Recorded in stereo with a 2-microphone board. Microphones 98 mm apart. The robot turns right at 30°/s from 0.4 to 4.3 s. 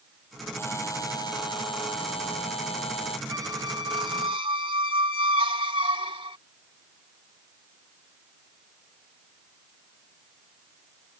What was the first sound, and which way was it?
A buzzer, 25° left.